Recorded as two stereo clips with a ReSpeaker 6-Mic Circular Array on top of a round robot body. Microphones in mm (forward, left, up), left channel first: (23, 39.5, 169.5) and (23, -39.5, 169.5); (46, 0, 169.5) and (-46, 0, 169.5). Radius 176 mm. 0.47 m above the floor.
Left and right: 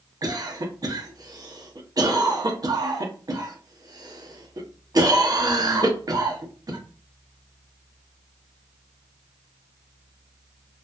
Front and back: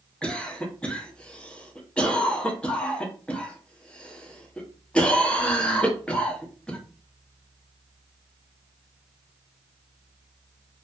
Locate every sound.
0.2 s a cough: 75° right, 1.1 m